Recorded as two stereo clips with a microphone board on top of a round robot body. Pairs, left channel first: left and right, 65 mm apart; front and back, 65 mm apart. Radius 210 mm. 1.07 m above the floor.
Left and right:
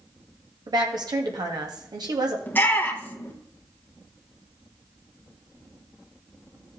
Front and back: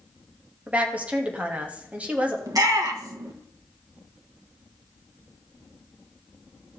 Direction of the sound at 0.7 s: 110° right.